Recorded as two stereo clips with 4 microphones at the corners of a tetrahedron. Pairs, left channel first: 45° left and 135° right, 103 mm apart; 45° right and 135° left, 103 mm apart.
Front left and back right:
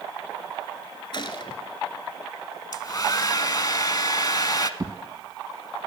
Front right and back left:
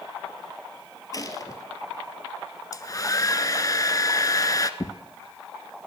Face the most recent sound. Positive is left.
turn(degrees=-90)